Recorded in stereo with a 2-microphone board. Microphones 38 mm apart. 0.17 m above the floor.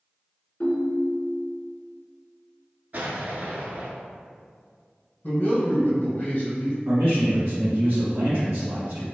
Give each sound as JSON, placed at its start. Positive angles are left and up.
{"t": 0.6, "sound": "a ringtone", "side_deg": 45, "distance_m": 0.7}
{"t": 2.9, "sound": "an explosion", "side_deg": -50, "distance_m": 0.5}
{"t": 5.2, "sound": "a man speaking", "side_deg": 35, "distance_m": 1.2}
{"t": 6.8, "sound": "a man speaking", "side_deg": -40, "distance_m": 1.2}